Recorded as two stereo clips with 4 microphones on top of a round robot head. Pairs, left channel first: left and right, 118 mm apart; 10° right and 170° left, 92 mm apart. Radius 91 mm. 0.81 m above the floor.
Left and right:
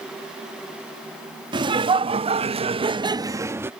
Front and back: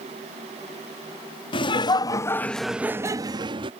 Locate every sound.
1.5 s laughter: 40° right; by 3.7 s 160° right